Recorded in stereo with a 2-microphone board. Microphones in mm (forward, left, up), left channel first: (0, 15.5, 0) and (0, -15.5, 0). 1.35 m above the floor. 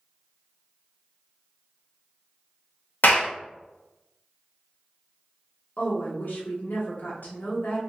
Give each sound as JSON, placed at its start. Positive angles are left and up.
{"t": 3.0, "sound": "a clap", "side_deg": 80, "distance_m": 0.9}
{"t": 5.8, "sound": "a woman speaking", "side_deg": 75, "distance_m": 1.2}